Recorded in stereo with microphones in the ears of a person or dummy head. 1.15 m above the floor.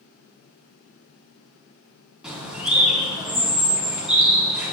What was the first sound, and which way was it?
A bird, centre (ahead or behind).